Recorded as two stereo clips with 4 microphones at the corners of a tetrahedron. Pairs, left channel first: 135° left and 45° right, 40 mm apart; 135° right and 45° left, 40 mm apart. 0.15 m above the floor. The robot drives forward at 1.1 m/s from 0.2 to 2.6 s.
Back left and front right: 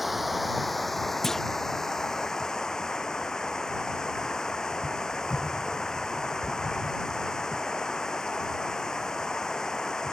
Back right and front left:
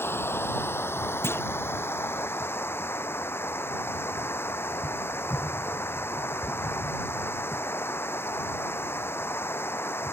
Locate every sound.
0.0 s running water: 130° right; by 10.1 s 150° right
1.2 s a clunk: 145° right